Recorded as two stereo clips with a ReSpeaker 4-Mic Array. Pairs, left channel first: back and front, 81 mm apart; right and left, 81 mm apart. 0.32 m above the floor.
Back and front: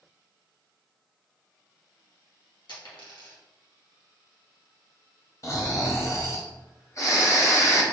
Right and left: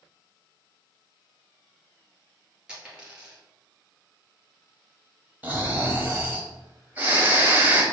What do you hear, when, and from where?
2.7 s a dropped coin: 170° left, 2 m
5.4 s snoring: 150° left, 1.1 m